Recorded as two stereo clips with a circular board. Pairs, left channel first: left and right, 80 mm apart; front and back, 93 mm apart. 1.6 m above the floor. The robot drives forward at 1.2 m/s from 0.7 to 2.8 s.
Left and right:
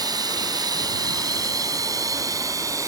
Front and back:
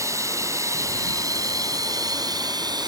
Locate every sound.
0.0 s running water: 125° right; by 2.9 s 140° right